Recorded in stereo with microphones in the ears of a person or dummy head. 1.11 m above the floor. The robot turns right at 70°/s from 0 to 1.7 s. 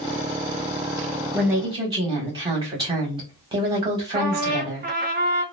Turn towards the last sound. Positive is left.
turn(degrees=-40)  # may be behind; listen again after turning